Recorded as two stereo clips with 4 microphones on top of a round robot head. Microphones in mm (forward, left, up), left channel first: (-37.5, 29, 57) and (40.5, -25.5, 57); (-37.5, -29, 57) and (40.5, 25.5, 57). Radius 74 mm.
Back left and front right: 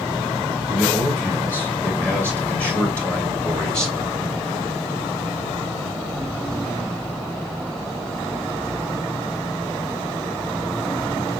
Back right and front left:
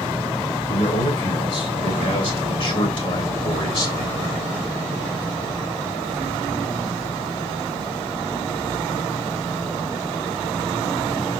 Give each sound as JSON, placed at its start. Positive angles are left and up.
{"t": 0.7, "sound": "a man speaking", "azimuth_deg": -145, "distance_m": 5.5}